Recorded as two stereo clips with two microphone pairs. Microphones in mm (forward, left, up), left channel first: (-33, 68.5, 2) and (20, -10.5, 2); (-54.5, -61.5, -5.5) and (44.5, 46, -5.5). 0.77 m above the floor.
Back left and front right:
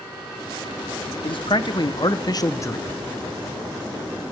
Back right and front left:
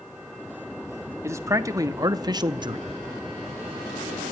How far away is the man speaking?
About 1.4 m.